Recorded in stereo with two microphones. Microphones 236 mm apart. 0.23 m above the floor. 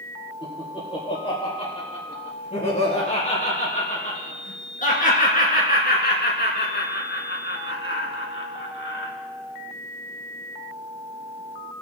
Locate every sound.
0.4 s laughter: 20° left (ahead or behind), 5.5 m; by 9.1 s 55° left (ahead or behind), 2.5 m